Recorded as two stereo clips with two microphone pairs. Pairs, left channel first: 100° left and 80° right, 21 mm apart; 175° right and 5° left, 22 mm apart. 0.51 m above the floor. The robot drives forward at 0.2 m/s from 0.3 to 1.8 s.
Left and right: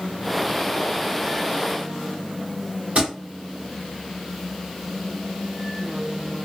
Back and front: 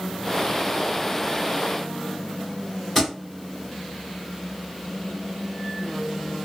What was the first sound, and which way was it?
A thud, 105° right.